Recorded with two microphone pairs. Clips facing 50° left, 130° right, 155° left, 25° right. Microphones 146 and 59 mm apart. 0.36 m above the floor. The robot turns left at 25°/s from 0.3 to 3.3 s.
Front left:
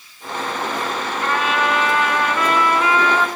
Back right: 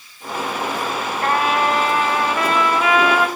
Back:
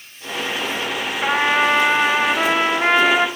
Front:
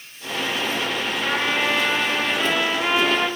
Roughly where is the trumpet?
Behind.